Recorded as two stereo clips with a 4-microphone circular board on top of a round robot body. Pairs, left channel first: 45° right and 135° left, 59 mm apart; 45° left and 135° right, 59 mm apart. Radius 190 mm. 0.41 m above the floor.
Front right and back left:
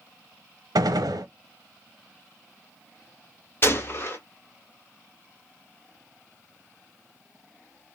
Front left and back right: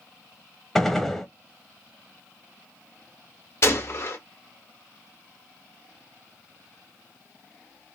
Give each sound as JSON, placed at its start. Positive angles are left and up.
{"t": 0.8, "sound": "a gunshot", "azimuth_deg": 130, "distance_m": 0.8}
{"t": 3.6, "sound": "a gunshot", "azimuth_deg": 5, "distance_m": 1.7}